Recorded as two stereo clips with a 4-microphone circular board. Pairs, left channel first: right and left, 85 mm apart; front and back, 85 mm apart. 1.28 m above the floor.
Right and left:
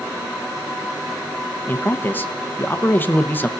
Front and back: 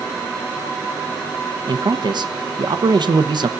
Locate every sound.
1.7 s a man speaking: 155° right, 0.8 m